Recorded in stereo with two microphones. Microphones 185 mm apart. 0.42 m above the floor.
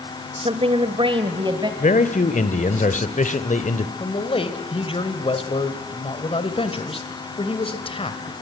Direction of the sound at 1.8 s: 40° left (ahead or behind).